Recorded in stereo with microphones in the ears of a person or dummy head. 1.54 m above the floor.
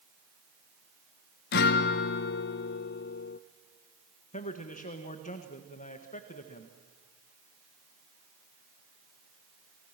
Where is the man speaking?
40° left (ahead or behind), 1.7 m.